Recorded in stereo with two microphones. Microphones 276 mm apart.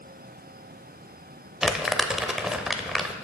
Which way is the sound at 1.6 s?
Centre (ahead or behind).